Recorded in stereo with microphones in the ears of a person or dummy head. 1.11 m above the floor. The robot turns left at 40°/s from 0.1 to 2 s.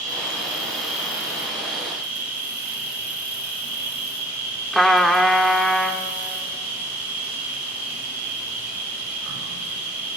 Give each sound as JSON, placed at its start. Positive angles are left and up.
{"t": 0.0, "sound": "an insect", "azimuth_deg": -45, "distance_m": 8.0}
{"t": 4.7, "sound": "a trumpet", "side_deg": 0, "distance_m": 1.1}